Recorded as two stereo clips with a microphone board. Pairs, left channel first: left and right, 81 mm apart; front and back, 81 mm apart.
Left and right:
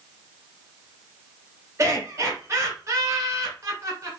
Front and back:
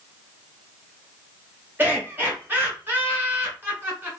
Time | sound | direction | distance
1.8 | laughter | 125° right | 1.5 m